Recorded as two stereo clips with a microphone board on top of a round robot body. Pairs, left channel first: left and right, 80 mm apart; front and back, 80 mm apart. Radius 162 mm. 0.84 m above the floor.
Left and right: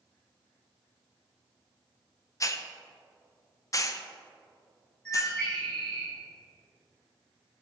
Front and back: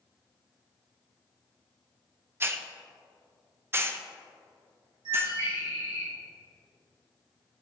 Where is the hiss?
125° left, 1.0 m.